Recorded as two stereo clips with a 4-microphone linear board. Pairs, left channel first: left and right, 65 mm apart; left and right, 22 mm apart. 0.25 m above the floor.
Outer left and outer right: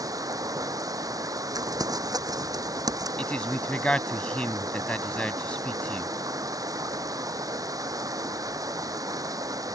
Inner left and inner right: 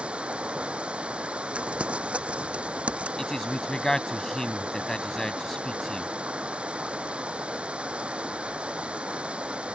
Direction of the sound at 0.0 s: 65° right (ahead or behind).